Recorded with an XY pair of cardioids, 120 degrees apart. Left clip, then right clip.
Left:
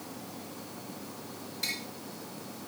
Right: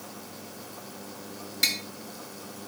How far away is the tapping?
About 1.7 m.